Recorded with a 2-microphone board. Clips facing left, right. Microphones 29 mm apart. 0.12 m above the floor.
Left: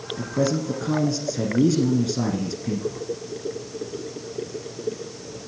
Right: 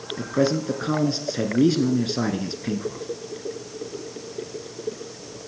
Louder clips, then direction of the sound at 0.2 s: Right 2 dB; 30° right (ahead or behind).